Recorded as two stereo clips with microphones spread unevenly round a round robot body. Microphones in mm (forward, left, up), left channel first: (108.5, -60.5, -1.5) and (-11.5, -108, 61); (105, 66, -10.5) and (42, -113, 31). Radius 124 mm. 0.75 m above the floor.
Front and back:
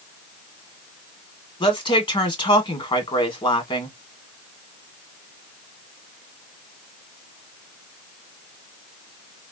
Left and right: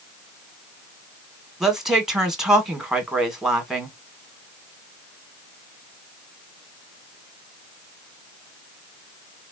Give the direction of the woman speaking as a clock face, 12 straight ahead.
1 o'clock.